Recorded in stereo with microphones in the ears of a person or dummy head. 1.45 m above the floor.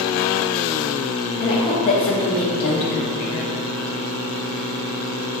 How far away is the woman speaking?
About 0.7 m.